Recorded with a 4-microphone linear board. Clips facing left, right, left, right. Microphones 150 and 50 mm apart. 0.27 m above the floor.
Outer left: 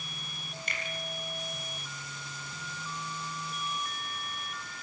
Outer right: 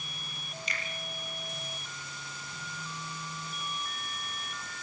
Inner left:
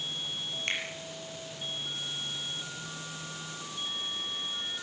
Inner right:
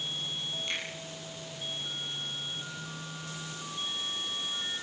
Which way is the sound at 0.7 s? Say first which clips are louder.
Outer left 1 dB, inner left 4 dB; 55° left (ahead or behind).